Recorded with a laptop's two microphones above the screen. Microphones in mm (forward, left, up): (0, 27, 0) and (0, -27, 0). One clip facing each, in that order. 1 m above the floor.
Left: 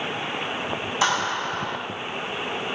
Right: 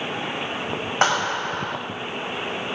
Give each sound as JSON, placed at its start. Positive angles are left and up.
{"t": 1.0, "sound": "a clap", "side_deg": -50, "distance_m": 5.0}